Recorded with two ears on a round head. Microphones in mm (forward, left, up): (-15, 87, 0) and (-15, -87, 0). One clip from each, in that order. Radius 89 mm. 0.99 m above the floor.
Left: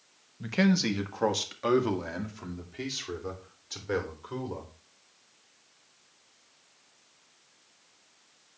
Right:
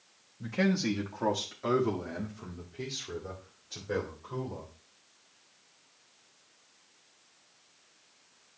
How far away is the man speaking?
About 1.2 m.